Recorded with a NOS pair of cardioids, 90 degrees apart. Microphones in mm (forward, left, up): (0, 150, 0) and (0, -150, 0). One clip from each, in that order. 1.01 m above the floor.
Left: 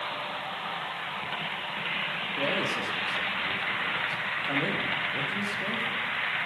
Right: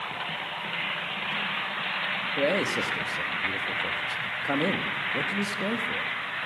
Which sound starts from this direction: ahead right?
A man speaking, at 2.4 s.